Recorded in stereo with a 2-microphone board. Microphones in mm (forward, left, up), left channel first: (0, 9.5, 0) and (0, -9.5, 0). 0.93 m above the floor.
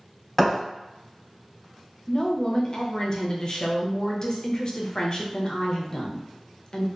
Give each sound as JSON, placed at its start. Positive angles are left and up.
{"t": 0.4, "sound": "a thud", "side_deg": 10, "distance_m": 0.9}
{"t": 2.1, "sound": "a woman speaking", "side_deg": 40, "distance_m": 0.5}